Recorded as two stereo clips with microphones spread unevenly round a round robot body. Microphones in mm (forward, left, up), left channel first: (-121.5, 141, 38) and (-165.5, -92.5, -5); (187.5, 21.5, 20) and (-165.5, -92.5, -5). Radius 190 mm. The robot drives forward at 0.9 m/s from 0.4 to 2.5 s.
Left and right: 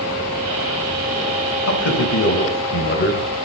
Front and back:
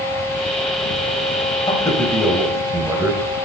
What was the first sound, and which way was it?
A man speaking, 95° left.